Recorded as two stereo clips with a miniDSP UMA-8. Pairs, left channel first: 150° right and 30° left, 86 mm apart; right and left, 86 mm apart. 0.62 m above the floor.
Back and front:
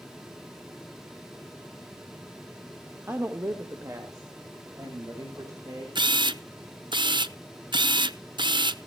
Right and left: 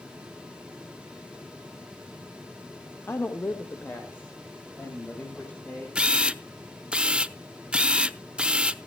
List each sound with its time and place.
3.1 s a woman speaking: 30° right, 1.3 m; by 5.8 s 20° right, 3.5 m
6.0 s a camera shutter: 15° left, 0.6 m